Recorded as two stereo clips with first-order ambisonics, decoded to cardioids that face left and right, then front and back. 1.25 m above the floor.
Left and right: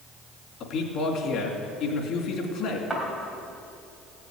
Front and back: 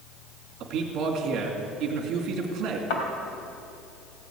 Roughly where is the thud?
Ahead.